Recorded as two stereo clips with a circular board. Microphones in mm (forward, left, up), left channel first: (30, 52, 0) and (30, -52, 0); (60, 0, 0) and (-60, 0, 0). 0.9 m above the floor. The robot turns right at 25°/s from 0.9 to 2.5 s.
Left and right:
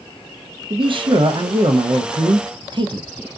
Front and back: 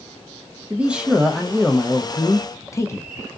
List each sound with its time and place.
0.7 s a man speaking: 100° right, 0.6 m; by 3.4 s 60° right, 0.6 m